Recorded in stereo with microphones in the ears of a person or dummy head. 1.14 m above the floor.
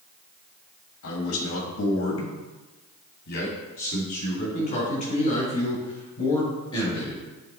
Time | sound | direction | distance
1.0 | a man speaking | 80° left | 1.7 m